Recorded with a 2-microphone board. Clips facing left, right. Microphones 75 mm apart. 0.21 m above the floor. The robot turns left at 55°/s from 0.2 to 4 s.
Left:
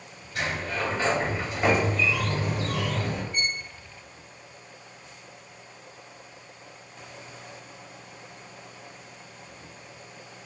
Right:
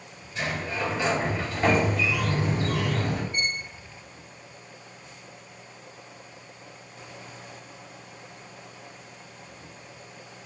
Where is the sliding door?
85° left, 3.5 m; by 3.2 s 75° right, 3.5 m.